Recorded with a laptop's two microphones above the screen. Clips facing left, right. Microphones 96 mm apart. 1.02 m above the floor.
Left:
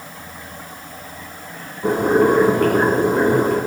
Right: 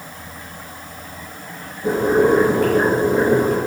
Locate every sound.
1.8 s boiling: 60° left (ahead or behind), 3 m